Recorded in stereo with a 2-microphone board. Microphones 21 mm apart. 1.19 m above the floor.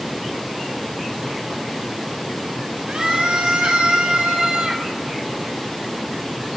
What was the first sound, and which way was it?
A scream, 60° right (ahead or behind).